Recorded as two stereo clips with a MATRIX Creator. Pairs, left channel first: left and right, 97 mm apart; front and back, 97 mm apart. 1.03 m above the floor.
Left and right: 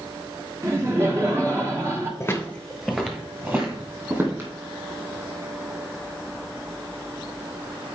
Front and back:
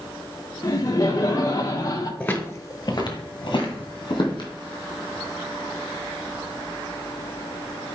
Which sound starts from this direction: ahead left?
Footsteps, at 2.2 s.